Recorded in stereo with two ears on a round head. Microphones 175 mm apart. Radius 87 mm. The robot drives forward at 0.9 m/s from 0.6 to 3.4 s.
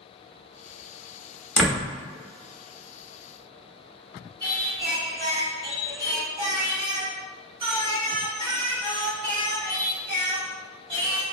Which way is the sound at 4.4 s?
25° right (ahead or behind).